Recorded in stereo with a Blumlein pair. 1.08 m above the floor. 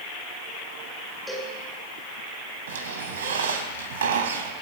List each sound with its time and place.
1.3 s a cowbell: straight ahead, 9.5 m
2.7 s a squeak: 60° right, 3 m